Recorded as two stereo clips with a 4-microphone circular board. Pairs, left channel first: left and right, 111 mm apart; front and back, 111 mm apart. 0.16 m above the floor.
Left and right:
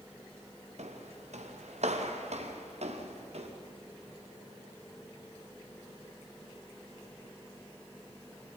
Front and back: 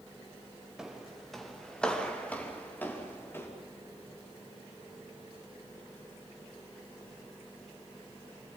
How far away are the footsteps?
About 2.5 m.